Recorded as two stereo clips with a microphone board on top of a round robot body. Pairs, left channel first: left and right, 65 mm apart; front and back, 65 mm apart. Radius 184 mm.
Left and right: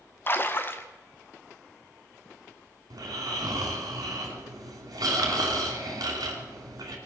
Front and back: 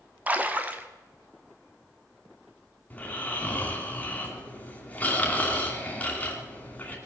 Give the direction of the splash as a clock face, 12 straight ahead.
8 o'clock.